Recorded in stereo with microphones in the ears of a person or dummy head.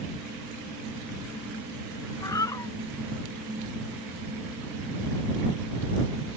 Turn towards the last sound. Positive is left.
turn(degrees=20)  # may be behind; listen again after turning